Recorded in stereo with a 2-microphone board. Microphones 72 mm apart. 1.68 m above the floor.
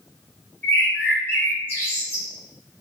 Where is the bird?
25° left (ahead or behind), 1.2 m.